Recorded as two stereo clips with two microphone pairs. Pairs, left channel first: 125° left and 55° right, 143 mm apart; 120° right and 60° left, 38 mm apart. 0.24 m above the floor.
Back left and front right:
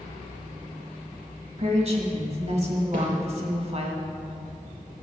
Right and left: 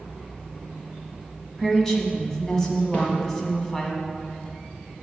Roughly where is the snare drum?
Right.